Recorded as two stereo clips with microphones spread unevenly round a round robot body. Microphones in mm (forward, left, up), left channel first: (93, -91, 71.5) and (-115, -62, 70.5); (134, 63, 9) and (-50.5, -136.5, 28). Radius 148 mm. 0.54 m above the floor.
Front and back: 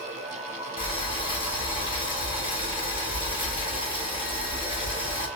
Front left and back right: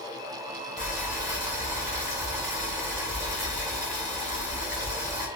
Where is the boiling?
55° right, 1.4 m.